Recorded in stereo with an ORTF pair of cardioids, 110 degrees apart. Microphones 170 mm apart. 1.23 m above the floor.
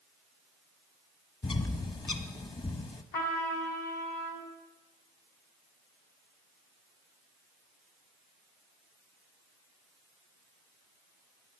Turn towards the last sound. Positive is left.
turn(degrees=65)